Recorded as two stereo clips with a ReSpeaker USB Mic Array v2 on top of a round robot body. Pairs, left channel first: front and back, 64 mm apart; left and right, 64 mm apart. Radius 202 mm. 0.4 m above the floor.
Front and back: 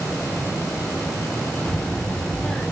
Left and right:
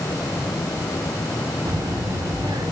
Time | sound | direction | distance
1.6 | a child speaking | 75° right | 0.6 m